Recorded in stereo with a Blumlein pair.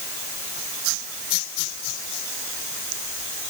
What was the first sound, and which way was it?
Only background noise.